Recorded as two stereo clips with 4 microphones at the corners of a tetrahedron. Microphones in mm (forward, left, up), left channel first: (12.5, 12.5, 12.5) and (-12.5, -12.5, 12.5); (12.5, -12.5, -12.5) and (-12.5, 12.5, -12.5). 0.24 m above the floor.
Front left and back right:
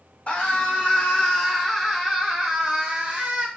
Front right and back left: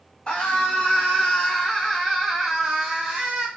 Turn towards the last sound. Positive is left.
turn(degrees=-170)